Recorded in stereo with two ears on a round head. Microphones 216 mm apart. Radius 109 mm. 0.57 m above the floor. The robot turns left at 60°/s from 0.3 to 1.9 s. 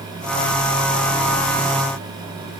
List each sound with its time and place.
Only background noise.